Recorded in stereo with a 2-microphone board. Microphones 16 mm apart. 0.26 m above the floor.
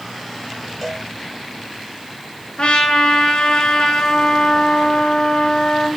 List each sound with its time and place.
0.8 s a cowbell: 10° left (ahead or behind), 3 m
2.6 s a trumpet: 60° left (ahead or behind), 3.5 m